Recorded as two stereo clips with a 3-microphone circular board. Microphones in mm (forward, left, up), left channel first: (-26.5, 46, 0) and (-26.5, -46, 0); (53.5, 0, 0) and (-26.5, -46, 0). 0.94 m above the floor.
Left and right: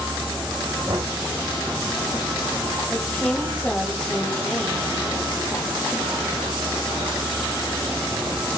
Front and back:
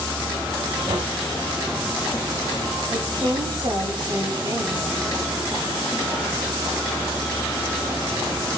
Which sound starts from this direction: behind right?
Knocking, at 0.9 s.